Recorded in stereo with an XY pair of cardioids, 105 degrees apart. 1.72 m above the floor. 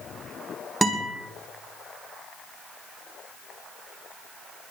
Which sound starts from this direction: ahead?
A guitar, at 0.8 s.